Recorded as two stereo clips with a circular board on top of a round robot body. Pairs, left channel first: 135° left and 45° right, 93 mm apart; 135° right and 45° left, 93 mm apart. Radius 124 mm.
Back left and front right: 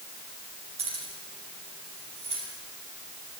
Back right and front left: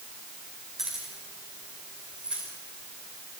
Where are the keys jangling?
40° right, 7.5 m; by 2.4 s 35° right, 10 m.